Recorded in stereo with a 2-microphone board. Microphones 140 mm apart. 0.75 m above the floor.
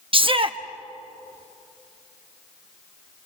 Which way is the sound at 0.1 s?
40° right (ahead or behind).